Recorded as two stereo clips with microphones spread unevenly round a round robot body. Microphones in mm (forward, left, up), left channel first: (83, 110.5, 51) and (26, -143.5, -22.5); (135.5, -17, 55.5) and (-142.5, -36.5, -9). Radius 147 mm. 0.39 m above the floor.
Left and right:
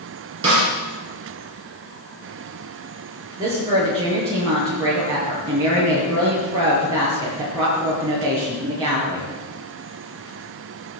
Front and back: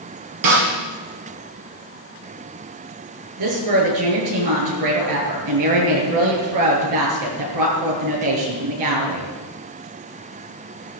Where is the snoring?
I don't hear snoring.